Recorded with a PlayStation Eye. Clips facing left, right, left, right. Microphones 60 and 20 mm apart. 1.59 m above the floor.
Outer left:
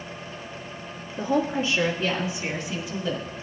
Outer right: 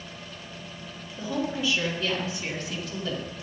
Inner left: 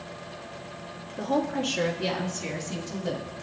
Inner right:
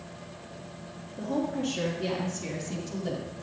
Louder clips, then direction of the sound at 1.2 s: Outer left 5 dB, inner left 3 dB; 40° left (ahead or behind).